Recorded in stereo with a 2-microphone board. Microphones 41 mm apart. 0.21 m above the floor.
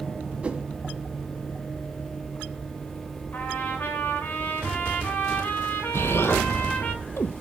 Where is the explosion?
80° left, 1.2 m.